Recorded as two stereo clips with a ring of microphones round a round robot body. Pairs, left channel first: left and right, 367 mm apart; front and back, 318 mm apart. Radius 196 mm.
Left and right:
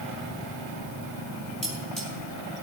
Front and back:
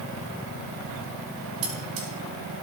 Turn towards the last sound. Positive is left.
turn(degrees=180)